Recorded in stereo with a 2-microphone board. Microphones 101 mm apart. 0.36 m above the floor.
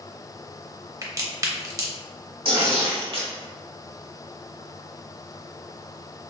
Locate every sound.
1.0 s a crack: 30° right (ahead or behind), 0.6 m
2.5 s tearing paper: 60° right (ahead or behind), 0.8 m